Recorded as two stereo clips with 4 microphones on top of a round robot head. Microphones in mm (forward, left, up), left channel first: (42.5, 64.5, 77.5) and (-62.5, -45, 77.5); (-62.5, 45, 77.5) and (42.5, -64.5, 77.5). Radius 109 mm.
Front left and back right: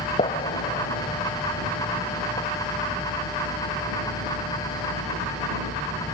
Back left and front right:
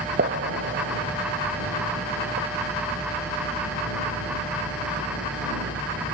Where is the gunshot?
15° right.